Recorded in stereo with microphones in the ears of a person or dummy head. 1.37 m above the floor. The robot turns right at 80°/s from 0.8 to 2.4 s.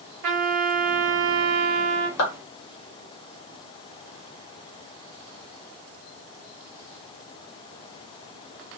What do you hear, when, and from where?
0.2 s a trumpet: 125° right, 0.8 m; by 2.1 s 25° right, 0.8 m
2.2 s a clap: 75° left (ahead or behind), 1.4 m; by 2.3 s 65° left (ahead or behind), 1.4 m